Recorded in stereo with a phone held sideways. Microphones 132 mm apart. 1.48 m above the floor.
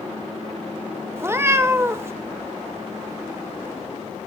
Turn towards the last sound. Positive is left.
turn(degrees=-20)  # may be behind; listen again after turning